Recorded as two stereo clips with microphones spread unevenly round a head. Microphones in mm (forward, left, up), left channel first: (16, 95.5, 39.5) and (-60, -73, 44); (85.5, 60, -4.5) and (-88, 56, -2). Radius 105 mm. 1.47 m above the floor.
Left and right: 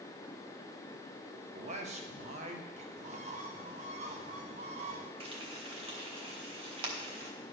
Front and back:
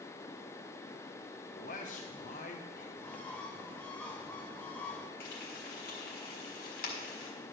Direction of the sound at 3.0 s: 80° right.